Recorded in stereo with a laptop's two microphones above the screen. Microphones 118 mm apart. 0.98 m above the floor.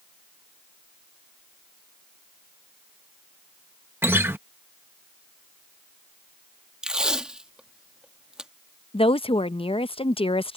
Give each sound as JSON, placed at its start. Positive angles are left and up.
{"t": 4.0, "sound": "a guitar", "side_deg": -20}
{"t": 6.8, "sound": "tape being pulled", "side_deg": -5}
{"t": 8.9, "sound": "a woman speaking", "side_deg": 50}